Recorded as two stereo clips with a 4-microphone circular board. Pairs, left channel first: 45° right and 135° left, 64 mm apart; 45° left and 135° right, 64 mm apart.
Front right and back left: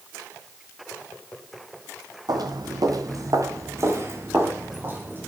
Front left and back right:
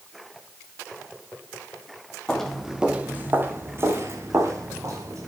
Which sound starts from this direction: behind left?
Footsteps, at 2.3 s.